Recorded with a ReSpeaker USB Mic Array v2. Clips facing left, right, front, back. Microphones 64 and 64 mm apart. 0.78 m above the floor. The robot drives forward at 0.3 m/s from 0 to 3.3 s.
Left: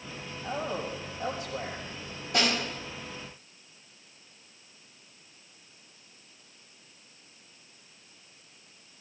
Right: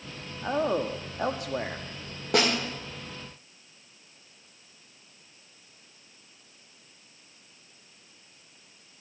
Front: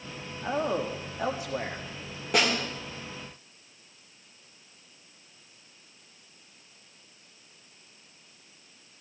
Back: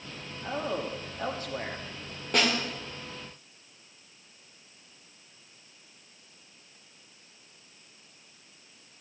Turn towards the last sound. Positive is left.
turn(degrees=-90)